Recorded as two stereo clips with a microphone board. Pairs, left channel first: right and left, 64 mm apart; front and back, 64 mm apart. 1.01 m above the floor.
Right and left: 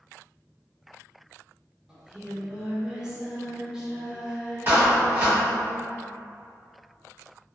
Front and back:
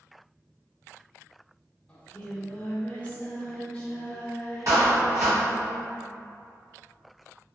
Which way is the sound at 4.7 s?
145° left.